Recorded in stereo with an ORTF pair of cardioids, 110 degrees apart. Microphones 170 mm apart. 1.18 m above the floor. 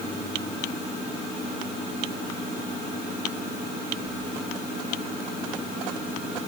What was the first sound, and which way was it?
Only background noise.